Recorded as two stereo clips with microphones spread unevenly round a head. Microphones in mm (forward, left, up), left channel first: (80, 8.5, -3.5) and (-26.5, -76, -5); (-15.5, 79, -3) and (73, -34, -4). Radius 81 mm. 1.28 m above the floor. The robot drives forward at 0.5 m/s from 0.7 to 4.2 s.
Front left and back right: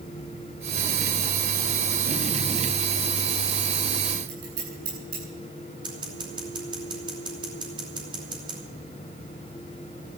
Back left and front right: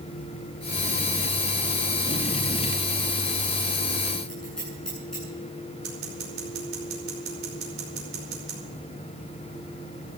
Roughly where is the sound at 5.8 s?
Right.